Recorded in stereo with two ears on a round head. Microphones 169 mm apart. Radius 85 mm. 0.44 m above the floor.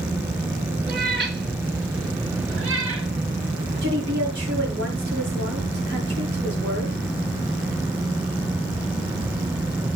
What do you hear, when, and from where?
0.9 s a cat meowing: 55° right (ahead or behind), 3.5 m; by 3.1 s 85° right, 4 m
3.8 s a woman speaking: 60° right (ahead or behind), 7 m